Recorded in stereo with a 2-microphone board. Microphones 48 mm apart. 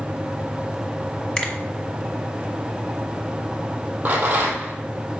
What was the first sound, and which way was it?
A finger snap, 20° left (ahead or behind).